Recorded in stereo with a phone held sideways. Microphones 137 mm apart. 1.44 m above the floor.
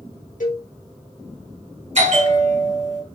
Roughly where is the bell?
Right.